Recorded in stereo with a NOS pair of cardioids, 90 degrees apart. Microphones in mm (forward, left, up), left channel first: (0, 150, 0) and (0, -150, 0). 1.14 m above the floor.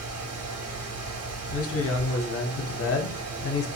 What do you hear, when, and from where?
0.0 s a fan: 55° right, 1.0 m
1.5 s a man speaking: 50° left, 0.9 m